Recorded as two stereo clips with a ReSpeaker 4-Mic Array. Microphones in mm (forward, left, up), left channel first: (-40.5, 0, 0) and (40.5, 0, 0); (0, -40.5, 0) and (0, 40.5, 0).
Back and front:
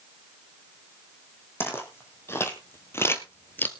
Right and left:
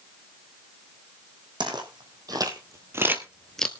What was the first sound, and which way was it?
Footsteps, 120° left.